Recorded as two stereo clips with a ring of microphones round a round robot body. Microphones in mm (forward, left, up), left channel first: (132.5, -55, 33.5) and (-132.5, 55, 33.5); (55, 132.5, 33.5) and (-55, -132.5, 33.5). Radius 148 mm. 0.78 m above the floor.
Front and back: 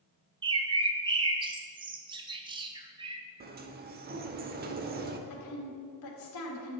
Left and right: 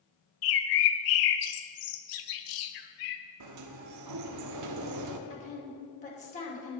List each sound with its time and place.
0.4 s a bird: 85° left, 1.0 m
3.4 s a sliding door: 145° right, 0.9 m
5.3 s a woman speaking: 5° left, 2.5 m